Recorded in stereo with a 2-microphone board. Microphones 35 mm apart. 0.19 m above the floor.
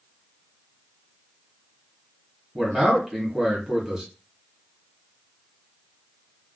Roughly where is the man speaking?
Centre.